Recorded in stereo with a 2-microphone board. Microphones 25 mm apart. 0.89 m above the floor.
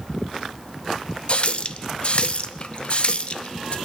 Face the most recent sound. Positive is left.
turn(degrees=45)  # may be behind; listen again after turning